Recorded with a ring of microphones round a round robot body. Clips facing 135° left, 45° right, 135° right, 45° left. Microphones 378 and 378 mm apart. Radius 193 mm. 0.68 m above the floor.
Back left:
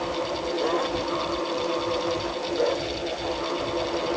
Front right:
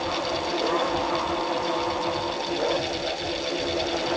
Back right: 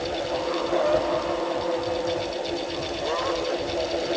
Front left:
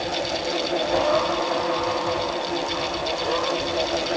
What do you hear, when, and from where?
Only background noise.